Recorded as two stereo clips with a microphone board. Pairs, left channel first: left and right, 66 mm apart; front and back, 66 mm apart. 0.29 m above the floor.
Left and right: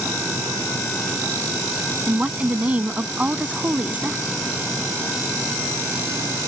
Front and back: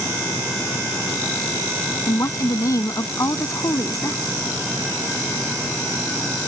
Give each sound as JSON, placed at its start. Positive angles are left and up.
{"t": 2.1, "sound": "a woman speaking", "azimuth_deg": -25}